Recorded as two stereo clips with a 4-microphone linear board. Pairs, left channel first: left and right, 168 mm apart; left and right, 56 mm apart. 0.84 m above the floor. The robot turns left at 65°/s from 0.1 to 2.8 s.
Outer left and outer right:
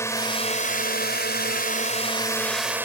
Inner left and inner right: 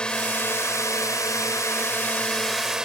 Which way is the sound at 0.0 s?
165° left.